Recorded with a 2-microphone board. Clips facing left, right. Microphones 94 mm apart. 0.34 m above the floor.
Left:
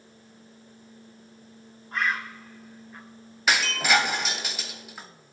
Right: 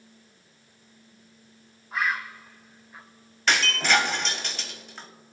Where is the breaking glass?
5° left (ahead or behind), 0.9 m.